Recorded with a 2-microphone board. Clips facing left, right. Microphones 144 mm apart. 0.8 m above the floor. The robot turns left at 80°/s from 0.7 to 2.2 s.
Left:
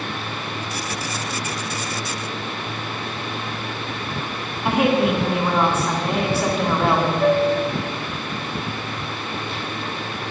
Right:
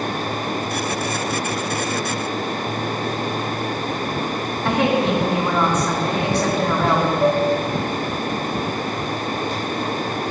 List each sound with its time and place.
4.7 s a woman speaking: 5° left (ahead or behind), 1.5 m
7.2 s a flute: 20° right (ahead or behind), 0.6 m